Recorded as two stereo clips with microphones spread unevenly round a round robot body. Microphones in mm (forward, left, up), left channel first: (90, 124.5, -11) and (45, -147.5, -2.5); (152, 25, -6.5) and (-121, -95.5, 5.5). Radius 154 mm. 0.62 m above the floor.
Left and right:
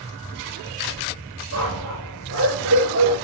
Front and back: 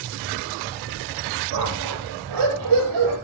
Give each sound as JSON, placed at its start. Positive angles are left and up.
{"t": 1.5, "sound": "a dog barking", "azimuth_deg": -150, "distance_m": 7.5}